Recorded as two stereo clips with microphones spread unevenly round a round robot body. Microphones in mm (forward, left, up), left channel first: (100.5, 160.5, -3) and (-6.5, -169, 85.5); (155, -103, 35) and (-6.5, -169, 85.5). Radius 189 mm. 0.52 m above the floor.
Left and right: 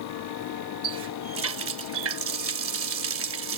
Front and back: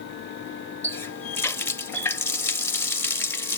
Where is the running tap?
50° right.